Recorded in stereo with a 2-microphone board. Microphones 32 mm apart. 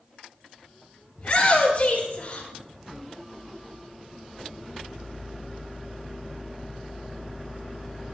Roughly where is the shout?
Left.